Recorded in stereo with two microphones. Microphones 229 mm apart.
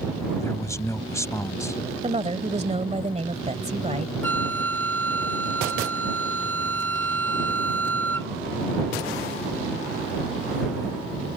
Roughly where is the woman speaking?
Right.